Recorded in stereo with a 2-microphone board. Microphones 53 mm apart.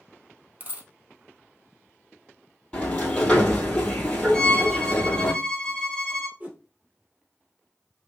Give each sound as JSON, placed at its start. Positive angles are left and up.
{"t": 0.6, "sound": "a dropped coin", "side_deg": -35, "distance_m": 1.2}
{"t": 2.7, "sound": "a sliding door", "side_deg": 25, "distance_m": 1.6}
{"t": 4.3, "sound": "a violin", "side_deg": 10, "distance_m": 0.9}
{"t": 6.4, "sound": "a whoosh", "side_deg": -30, "distance_m": 1.5}